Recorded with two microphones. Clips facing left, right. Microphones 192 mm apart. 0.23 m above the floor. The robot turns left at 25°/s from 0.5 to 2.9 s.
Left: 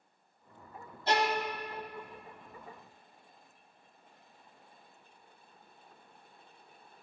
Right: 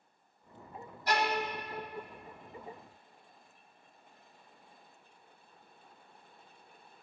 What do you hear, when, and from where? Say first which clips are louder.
1.1 s a violin: left 2 dB; 25° left (ahead or behind), 1.0 m